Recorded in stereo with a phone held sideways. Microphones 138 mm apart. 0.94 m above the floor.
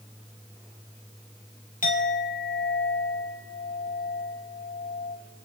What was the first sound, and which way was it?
A clink, 85° left.